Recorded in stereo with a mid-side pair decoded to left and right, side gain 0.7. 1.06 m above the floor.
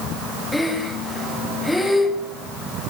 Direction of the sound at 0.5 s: 5° left.